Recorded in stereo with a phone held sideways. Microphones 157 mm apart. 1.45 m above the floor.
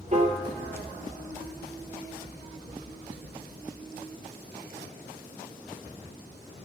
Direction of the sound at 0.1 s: 45° right (ahead or behind).